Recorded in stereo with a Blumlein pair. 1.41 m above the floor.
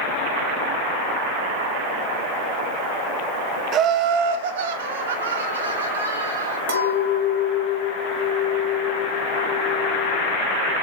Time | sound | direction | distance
3.7 | laughter | 30° right | 0.7 m
6.7 | a clink | 60° right | 2 m